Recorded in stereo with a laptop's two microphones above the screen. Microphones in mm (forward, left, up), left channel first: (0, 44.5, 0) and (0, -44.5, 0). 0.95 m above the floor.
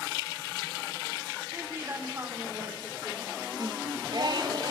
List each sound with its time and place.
1.5 s a woman speaking: 30° right (ahead or behind), 3.5 m
3.6 s singing: 50° right (ahead or behind), 1.4 m